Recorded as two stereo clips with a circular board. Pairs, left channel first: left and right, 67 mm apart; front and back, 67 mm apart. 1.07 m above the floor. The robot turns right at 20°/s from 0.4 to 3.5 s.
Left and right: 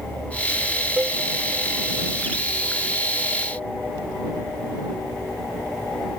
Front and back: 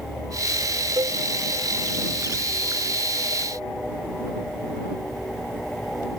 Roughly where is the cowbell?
Behind.